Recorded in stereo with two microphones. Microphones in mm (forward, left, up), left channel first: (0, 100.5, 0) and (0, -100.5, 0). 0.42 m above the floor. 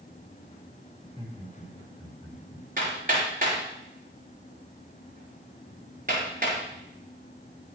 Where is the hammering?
45° right (ahead or behind), 6 m.